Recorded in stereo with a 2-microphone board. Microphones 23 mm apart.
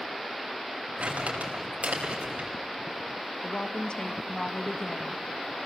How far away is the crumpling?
About 5 m.